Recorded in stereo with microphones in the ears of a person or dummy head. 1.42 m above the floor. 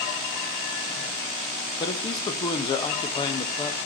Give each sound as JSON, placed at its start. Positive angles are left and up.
{"t": 1.8, "sound": "a man speaking", "side_deg": 30, "distance_m": 1.1}